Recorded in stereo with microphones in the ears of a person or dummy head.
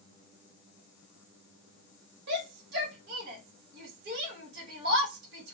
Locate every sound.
2.3 s a shout: 60° right (ahead or behind), 1.1 m